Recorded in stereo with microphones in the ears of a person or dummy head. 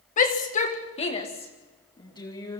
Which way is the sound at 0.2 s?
45° left (ahead or behind).